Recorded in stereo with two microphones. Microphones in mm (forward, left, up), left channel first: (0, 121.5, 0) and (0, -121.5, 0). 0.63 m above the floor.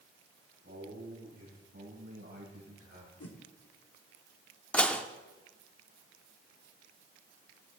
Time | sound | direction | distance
0.6 | a man speaking | 55° right (ahead or behind) | 6 m
3.2 | a whoosh | 75° left (ahead or behind) | 1.1 m
4.7 | dishes clattering | 5° left (ahead or behind) | 0.6 m